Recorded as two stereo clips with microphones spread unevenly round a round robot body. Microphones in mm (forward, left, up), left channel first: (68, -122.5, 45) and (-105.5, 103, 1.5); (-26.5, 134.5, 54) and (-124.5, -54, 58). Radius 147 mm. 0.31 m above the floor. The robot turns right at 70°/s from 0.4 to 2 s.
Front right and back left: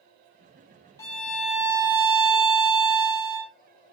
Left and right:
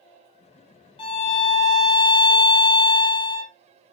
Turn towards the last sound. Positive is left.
turn(degrees=100)